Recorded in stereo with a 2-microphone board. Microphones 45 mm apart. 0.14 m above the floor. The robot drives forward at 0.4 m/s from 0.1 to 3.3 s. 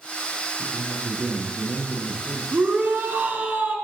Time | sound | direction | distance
0.6 | a man speaking | 40° right (ahead or behind) | 4.5 m
2.5 | a shout | 40° right (ahead or behind) | 1.4 m